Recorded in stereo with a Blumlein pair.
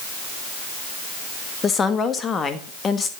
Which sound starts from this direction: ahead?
A woman speaking, at 1.6 s.